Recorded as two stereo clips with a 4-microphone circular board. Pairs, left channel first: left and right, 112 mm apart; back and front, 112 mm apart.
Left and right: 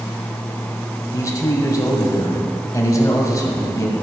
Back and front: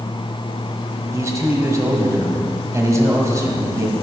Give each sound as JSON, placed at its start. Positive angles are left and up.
{"t": 1.1, "sound": "a man speaking", "azimuth_deg": 45, "distance_m": 1.4}